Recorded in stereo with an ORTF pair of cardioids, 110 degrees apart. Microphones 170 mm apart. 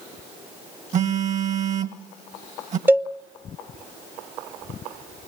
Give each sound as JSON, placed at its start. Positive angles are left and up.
{"t": 0.9, "sound": "a phone buzzing", "azimuth_deg": -45, "distance_m": 1.5}
{"t": 2.9, "sound": "a cowbell", "azimuth_deg": -10, "distance_m": 0.7}